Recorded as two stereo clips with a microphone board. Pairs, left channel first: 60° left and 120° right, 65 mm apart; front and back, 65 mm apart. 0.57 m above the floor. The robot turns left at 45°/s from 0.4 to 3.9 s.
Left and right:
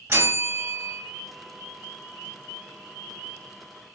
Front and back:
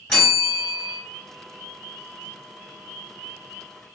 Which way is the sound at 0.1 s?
85° right.